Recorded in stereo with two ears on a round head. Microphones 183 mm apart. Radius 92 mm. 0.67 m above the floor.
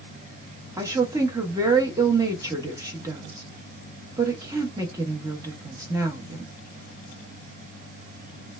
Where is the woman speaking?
15° right (ahead or behind), 0.6 m.